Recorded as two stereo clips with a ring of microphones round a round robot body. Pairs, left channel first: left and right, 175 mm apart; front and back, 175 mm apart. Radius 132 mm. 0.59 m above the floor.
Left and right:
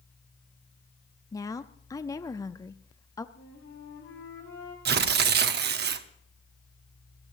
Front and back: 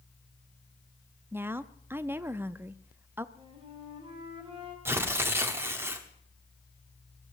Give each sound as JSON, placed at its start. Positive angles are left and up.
{"t": 1.3, "sound": "a woman speaking", "azimuth_deg": 120, "distance_m": 0.6}
{"t": 3.4, "sound": "a flute", "azimuth_deg": 120, "distance_m": 4.0}
{"t": 4.8, "sound": "tearing paper", "azimuth_deg": -105, "distance_m": 0.9}